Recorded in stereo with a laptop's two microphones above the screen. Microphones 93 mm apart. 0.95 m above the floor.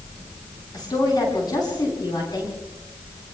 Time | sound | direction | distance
0.7 | a woman speaking | 50° left (ahead or behind) | 9.5 m